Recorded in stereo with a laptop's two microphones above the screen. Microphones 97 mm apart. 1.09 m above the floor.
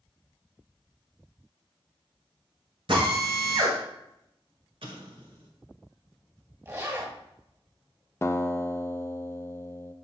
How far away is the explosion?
About 1.7 m.